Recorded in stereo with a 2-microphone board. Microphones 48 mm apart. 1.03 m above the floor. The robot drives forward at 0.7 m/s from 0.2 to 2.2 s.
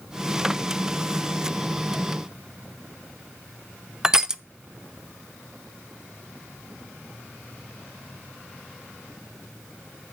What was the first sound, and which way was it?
Crushing, 10° right (ahead or behind).